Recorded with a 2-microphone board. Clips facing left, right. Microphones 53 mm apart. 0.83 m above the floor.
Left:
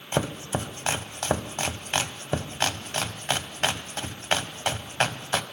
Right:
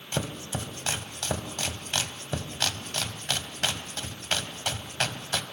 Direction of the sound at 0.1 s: 30° left (ahead or behind).